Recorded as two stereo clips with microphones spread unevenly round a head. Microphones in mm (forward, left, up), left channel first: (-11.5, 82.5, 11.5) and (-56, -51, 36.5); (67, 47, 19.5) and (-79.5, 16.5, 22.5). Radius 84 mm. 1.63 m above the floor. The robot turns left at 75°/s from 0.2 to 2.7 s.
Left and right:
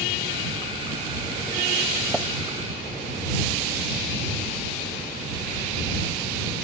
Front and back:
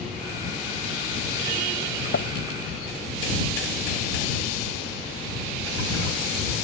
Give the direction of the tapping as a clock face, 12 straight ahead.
1 o'clock.